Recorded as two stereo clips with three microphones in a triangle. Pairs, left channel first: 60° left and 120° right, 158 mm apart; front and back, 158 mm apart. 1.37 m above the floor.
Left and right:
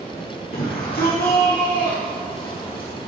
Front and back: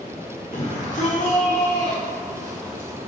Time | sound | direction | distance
0.5 | a shout | 40° left | 1.9 m